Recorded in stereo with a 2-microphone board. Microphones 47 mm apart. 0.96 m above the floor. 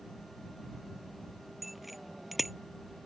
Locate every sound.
1.6 s a bicycle bell: 5° right (ahead or behind)